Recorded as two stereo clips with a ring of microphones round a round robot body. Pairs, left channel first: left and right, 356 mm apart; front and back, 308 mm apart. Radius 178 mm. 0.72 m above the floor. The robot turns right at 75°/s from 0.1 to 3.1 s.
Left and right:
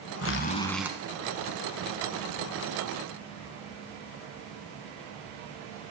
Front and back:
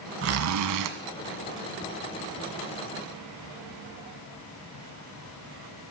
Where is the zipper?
135° left, 1.0 m; by 0.9 s 170° right, 1.0 m.